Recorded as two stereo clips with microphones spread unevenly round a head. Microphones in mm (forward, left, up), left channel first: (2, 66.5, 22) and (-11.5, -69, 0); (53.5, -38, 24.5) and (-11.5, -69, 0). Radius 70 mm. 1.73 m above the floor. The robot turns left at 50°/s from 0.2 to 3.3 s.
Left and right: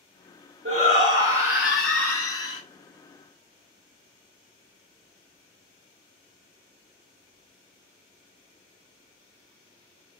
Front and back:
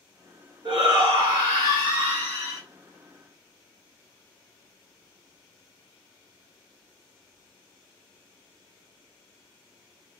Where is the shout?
135° right, 1.2 m; by 2.6 s 130° left, 1.2 m.